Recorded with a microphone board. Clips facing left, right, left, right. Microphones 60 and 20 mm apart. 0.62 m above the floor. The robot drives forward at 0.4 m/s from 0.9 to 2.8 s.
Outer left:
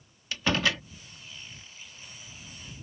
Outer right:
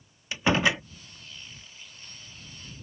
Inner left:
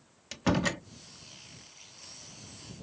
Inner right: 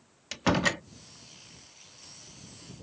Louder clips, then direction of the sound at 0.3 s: Outer right 3 dB, inner right 3 dB; 20° right (ahead or behind).